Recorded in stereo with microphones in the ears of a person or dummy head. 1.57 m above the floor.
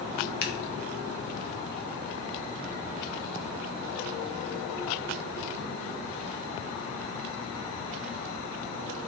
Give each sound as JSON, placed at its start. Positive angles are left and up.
{"t": 0.4, "sound": "scissors", "side_deg": 65, "distance_m": 0.8}